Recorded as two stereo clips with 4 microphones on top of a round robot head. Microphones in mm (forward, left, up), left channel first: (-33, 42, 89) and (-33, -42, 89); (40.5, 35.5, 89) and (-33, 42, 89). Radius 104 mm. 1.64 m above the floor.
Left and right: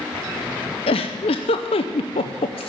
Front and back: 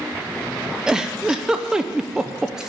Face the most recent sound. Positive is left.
turn(degrees=95)